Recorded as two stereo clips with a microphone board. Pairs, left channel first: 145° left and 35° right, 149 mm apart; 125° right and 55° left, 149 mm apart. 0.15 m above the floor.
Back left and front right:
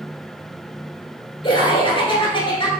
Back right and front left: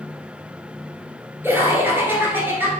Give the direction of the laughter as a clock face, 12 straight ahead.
8 o'clock.